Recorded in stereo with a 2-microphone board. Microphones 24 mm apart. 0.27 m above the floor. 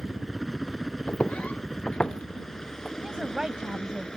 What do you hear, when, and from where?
0.0 s a helicopter: 5° right (ahead or behind); by 4.2 s 30° left (ahead or behind)
1.1 s footsteps: 80° left; by 2.9 s 20° left (ahead or behind)
3.0 s a woman speaking: 35° right (ahead or behind)